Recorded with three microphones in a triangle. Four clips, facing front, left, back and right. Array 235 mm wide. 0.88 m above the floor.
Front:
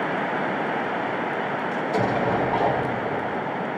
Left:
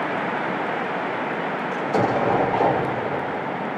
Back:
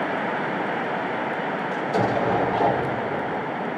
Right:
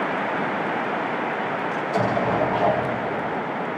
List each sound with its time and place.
1.7 s an explosion: 105° left, 1.8 m